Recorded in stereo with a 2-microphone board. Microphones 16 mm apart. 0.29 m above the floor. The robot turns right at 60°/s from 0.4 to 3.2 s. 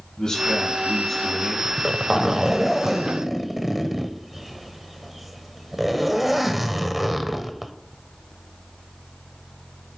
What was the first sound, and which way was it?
A man speaking, 120° left.